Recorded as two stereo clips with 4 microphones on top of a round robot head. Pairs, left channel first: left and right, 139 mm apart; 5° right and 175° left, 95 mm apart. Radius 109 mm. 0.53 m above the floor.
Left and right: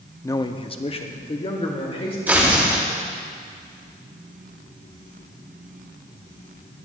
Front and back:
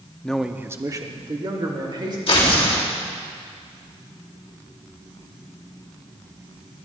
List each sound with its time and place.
0.2 s a man speaking: 55° left, 0.7 m; by 2.2 s 135° left, 2.5 m
2.3 s tearing paper: 10° right, 3 m